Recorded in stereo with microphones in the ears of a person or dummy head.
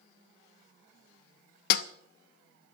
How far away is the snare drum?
About 0.6 m.